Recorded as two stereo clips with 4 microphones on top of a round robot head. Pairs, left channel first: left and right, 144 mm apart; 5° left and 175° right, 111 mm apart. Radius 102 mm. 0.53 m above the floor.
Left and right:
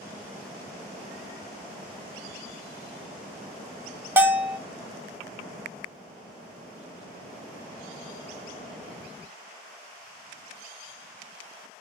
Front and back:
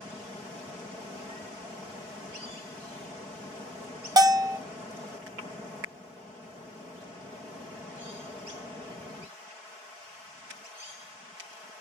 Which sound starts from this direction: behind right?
A bell, at 4.2 s.